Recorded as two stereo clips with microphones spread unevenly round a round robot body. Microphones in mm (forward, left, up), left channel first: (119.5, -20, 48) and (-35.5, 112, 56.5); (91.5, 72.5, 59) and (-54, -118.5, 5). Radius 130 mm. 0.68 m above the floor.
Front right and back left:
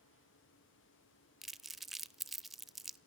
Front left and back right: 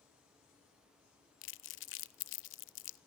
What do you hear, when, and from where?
1.4 s crumpling: 55° left, 0.5 m